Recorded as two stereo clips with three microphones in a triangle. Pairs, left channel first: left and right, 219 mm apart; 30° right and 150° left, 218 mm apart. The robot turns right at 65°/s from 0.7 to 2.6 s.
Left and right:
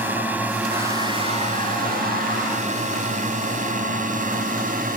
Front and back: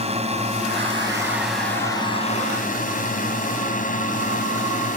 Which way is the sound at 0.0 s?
165° right.